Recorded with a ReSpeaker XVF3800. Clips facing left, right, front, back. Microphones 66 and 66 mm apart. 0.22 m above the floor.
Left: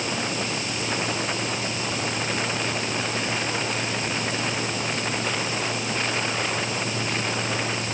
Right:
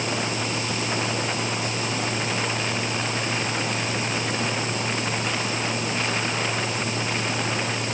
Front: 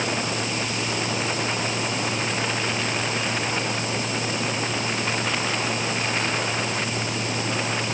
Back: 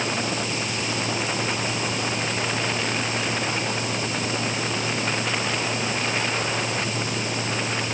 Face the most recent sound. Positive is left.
No sound to turn to.